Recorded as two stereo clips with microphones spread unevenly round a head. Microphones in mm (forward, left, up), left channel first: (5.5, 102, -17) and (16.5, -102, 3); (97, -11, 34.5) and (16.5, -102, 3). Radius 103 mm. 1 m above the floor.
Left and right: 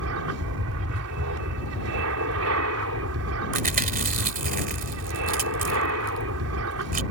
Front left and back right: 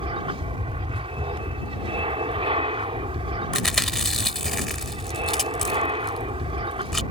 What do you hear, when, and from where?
0.0 s an aircraft: 100° right
3.5 s chewing: 35° right